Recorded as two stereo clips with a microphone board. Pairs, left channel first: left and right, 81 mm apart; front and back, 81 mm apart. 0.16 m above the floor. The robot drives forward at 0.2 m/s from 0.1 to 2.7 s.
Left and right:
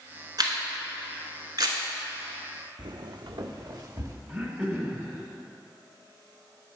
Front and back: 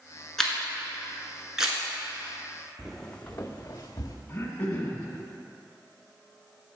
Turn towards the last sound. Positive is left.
turn(degrees=-45)